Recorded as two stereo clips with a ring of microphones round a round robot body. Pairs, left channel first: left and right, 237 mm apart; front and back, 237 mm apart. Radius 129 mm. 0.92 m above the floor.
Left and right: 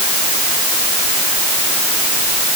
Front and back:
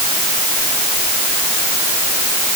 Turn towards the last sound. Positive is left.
No sound to turn to.